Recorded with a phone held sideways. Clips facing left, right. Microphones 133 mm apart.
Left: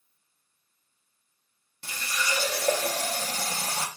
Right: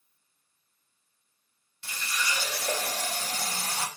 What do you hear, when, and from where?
1.8 s a running tap: 45° left (ahead or behind), 0.7 m